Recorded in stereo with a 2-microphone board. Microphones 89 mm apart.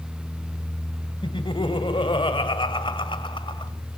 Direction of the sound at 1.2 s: 65° left (ahead or behind).